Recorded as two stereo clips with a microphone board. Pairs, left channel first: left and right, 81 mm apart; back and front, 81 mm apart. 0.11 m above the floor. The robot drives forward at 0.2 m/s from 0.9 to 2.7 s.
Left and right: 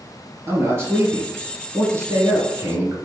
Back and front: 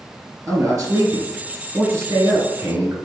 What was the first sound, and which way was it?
A man speaking, 40° right.